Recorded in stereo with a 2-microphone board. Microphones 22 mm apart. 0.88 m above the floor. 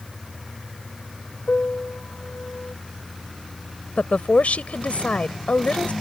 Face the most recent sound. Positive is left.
turn(degrees=85)